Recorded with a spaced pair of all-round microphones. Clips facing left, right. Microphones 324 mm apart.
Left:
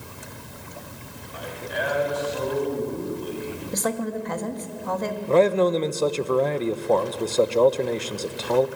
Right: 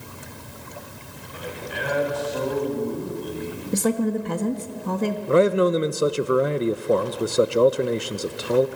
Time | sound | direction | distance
1.3 | a man speaking | 45° right (ahead or behind) | 5 m
3.7 | a woman speaking | 40° right (ahead or behind) | 1.8 m
5.3 | a man speaking | 15° right (ahead or behind) | 0.8 m